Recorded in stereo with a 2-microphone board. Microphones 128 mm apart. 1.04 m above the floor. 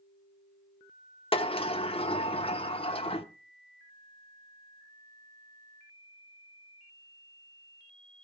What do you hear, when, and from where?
1.3 s a sliding door: 50° left (ahead or behind), 1.0 m